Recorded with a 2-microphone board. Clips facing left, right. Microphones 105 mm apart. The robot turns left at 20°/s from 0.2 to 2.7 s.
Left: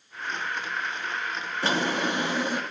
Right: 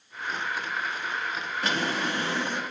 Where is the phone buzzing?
No phone buzzing in this recording.